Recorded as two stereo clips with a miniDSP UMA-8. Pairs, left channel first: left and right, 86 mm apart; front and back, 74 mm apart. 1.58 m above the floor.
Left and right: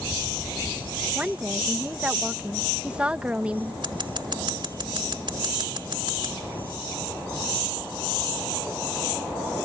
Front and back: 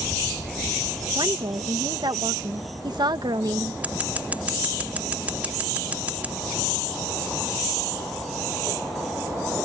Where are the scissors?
110° right.